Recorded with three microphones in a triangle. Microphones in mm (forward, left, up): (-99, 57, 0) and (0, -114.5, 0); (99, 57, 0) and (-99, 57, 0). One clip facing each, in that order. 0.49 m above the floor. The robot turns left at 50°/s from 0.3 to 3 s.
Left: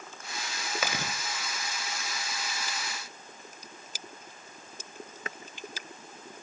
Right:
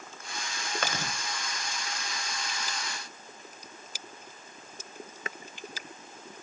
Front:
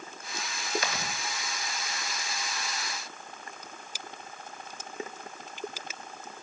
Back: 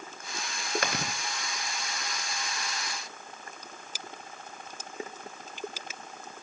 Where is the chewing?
155° right, 1.0 m; by 1.1 s 170° right, 1.0 m.